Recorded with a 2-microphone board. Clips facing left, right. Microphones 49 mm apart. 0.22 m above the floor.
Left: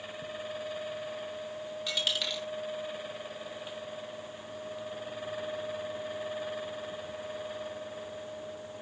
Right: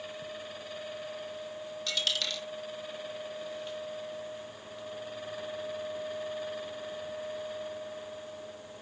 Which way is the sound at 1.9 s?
10° left (ahead or behind).